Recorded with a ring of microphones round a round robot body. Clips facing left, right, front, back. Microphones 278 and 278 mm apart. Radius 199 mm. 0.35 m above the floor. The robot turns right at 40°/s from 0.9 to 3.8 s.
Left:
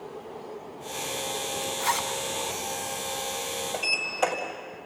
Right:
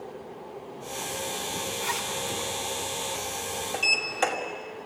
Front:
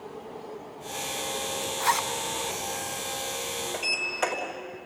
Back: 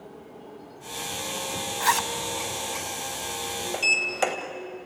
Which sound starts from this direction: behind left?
A zipper, at 1.8 s.